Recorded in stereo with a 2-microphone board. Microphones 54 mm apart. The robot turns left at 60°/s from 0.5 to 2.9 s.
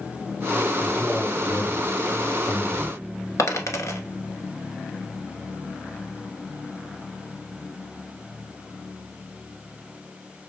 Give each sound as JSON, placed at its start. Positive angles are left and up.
{"t": 0.8, "sound": "a man speaking", "azimuth_deg": 160, "distance_m": 2.0}
{"t": 3.4, "sound": "a dropped coin", "side_deg": 65, "distance_m": 1.2}